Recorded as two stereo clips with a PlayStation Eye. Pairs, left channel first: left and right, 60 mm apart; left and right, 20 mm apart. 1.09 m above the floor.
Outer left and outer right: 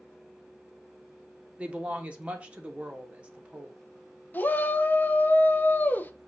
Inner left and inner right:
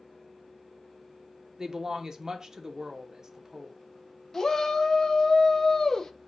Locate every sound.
1.6 s a woman speaking: 20° right (ahead or behind), 0.8 m
4.3 s a shout: 30° left (ahead or behind), 0.6 m